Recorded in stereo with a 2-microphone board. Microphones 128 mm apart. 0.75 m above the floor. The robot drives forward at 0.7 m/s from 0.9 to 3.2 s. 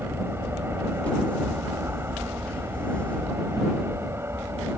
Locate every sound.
0.0 s an aircraft: 20° right (ahead or behind)